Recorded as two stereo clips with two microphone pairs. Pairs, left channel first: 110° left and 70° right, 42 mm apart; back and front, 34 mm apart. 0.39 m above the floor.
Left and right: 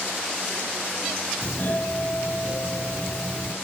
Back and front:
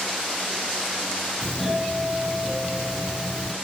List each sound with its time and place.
1.4 s a doorbell: 100° left, 3 m